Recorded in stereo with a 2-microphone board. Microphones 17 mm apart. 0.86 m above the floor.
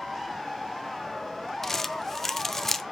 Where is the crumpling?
25° left (ahead or behind), 0.6 m.